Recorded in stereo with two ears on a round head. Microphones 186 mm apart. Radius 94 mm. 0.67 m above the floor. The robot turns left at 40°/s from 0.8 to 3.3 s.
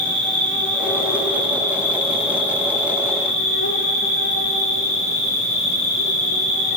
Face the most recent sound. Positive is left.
turn(degrees=75)